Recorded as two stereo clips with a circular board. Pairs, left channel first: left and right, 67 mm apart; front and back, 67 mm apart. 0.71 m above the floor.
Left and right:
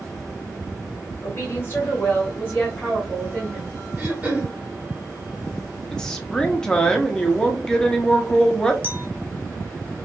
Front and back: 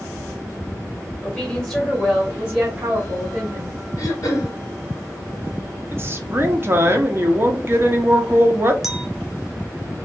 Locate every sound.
1.2 s a woman speaking: 55° left, 1.3 m; by 3.8 s straight behind, 1.5 m
4.0 s throat clearing: 25° right, 1.2 m
5.9 s a woman speaking: 165° left, 0.6 m
8.8 s a clink: 100° right, 0.5 m